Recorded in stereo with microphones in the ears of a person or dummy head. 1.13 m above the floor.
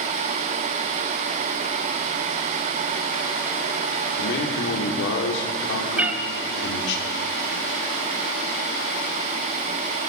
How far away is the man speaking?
About 2.5 m.